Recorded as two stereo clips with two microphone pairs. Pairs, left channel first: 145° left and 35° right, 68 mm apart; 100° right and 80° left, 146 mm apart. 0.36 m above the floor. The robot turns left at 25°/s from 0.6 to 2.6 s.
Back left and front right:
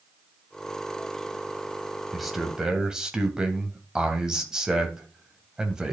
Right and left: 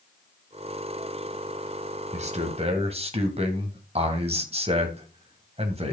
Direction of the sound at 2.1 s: 55° left.